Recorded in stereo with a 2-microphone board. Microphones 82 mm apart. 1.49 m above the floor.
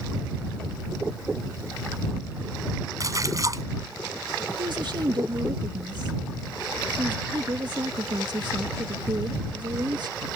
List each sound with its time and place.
3.0 s a splash: 40° right (ahead or behind)
4.6 s a woman speaking: 60° right (ahead or behind)